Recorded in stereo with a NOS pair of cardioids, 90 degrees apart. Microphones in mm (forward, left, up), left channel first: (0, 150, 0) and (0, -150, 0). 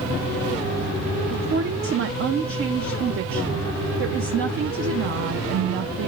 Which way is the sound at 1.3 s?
45° right.